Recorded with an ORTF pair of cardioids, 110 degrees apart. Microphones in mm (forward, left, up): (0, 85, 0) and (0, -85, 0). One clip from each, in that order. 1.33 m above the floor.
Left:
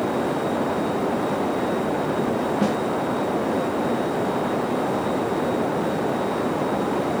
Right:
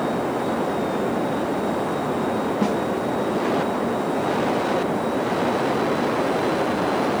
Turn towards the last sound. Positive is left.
turn(degrees=5)